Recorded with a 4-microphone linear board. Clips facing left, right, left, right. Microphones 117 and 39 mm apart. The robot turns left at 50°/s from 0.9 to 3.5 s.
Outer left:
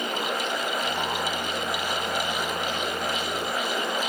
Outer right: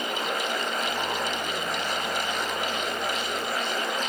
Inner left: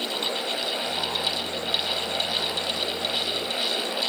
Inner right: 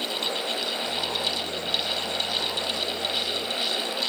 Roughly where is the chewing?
I don't hear chewing.